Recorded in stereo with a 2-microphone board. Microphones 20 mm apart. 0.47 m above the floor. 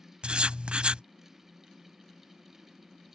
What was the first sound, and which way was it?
Writing, 70° right (ahead or behind).